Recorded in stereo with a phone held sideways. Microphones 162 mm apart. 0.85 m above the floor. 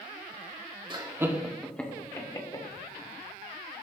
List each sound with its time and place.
0.9 s laughter: 30° right (ahead or behind), 1.6 m; by 2.6 s 30° left (ahead or behind), 2.5 m